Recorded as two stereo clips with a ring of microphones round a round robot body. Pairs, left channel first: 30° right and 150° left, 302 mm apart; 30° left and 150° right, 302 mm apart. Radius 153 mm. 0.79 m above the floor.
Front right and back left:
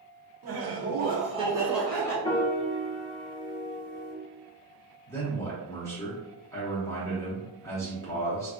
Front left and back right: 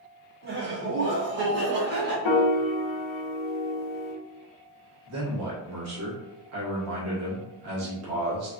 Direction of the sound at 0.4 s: 165° left.